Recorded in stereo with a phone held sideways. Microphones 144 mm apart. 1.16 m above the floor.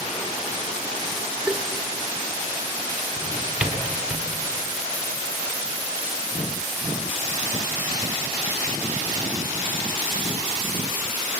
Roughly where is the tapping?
Centre.